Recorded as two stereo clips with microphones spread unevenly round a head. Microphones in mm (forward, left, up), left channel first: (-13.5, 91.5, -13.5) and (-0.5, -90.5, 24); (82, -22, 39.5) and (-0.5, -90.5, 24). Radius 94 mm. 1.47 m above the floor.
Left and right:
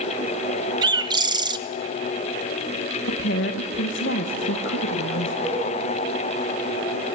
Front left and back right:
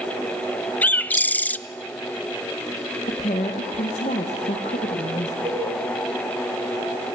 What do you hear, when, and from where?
0.8 s a bird: 30° right, 0.6 m
3.1 s a woman speaking: 70° left, 1.5 m
5.5 s a cowbell: 175° left, 4 m